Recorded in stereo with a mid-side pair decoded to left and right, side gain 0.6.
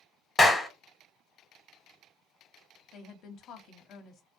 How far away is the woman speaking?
About 0.7 m.